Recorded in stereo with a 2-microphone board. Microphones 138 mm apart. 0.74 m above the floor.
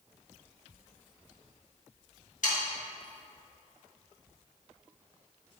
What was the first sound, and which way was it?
Sawing, 70° left (ahead or behind).